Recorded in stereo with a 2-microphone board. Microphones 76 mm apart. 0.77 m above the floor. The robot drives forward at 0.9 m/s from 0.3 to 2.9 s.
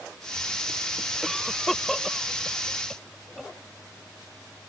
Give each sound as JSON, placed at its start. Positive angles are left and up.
{"t": 1.2, "sound": "a cough", "side_deg": 0}